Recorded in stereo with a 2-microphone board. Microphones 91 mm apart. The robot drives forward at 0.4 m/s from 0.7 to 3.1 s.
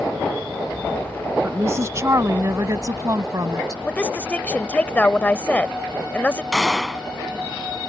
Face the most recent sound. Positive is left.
turn(degrees=-5)  # may be behind; listen again after turning